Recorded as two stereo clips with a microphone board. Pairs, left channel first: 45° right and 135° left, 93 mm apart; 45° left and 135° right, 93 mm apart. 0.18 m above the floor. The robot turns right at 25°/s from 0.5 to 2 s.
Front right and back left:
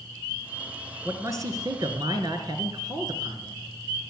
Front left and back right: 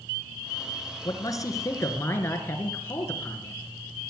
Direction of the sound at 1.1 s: 85° left.